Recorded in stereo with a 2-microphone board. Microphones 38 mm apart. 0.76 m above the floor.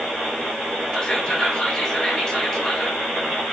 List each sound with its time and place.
0.9 s whispering: 20° left (ahead or behind), 1.4 m